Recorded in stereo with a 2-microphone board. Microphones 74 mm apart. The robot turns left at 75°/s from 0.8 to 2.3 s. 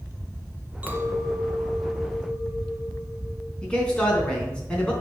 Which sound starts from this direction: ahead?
A clink, at 0.8 s.